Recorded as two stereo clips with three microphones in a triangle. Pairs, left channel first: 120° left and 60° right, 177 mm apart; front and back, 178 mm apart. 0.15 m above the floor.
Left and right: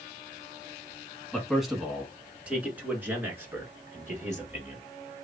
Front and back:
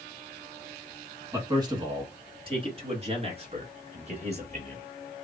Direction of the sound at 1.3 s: 155° right.